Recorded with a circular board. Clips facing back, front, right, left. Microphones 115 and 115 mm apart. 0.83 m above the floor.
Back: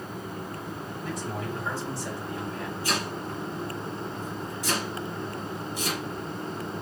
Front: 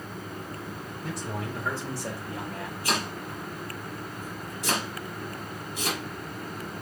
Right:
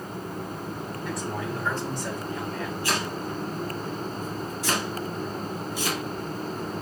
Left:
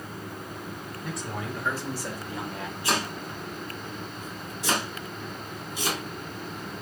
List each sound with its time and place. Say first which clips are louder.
1.0 s a man speaking: back 1 dB, right 3 dB; straight ahead, 2.5 m; by 2.7 s 25° left, 1.3 m
2.8 s chopping: front 1 dB, left 2 dB; 20° left, 1.9 m